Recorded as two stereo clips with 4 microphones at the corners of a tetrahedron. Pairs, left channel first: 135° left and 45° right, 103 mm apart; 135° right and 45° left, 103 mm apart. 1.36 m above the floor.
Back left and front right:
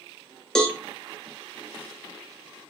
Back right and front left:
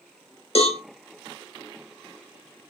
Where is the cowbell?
140° right, 0.7 m.